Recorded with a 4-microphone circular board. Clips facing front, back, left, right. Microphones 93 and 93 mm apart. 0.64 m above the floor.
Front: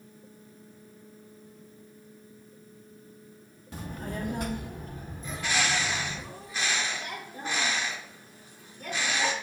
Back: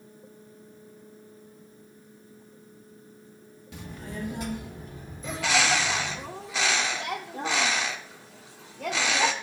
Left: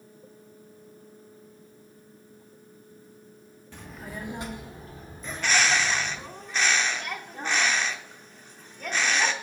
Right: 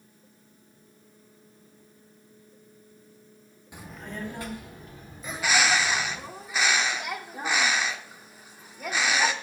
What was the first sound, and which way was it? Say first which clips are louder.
A child speaking: front 2 dB, right 1 dB; 20° right.